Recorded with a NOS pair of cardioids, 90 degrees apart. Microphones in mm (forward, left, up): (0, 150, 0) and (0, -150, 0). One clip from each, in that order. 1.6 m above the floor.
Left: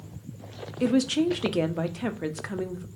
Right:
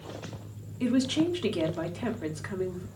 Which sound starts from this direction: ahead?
A woman speaking, at 0.8 s.